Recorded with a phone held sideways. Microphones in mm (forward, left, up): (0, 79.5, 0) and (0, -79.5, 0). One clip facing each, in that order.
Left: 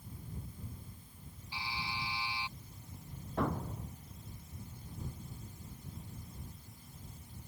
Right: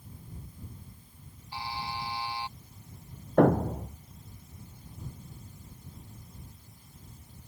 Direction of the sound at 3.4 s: 85° right.